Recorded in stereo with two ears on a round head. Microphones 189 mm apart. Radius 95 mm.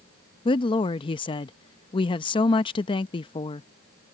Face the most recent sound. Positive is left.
turn(degrees=25)  # may be behind; listen again after turning